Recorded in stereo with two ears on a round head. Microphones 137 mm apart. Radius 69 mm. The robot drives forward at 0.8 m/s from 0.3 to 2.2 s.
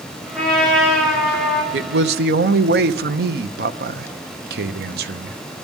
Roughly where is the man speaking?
Right.